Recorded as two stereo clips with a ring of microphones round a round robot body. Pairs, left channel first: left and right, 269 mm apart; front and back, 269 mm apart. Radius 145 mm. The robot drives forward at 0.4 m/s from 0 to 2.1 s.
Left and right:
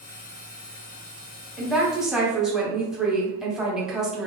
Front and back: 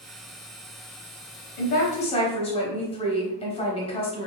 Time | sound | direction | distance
1.6 | a woman speaking | 5° right | 0.8 m